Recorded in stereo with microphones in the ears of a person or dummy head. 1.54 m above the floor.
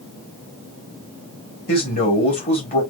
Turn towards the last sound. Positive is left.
turn(degrees=40)  # may be behind; listen again after turning